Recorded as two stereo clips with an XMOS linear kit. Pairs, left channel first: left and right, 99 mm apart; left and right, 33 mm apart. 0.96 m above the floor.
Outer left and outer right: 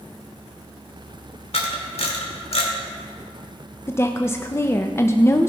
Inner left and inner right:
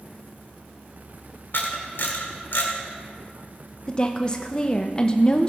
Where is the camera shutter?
75° left (ahead or behind), 2 m.